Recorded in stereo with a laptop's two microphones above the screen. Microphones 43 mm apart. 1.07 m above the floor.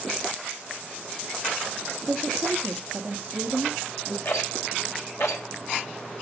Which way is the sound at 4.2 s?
90° left.